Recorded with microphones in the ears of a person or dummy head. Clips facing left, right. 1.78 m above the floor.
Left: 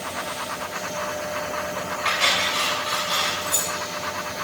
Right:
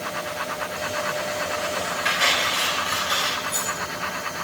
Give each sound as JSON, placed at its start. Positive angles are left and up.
{"t": 2.0, "sound": "cutlery clinking", "side_deg": -10, "distance_m": 4.5}
{"t": 3.4, "sound": "keys jangling", "side_deg": 35, "distance_m": 2.0}